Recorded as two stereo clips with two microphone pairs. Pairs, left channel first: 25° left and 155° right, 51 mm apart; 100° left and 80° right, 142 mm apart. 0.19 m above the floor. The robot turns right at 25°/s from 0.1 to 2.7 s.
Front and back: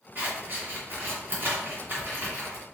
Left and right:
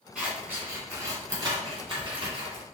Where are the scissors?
160° right, 2.0 m; by 2.6 s 100° right, 2.0 m.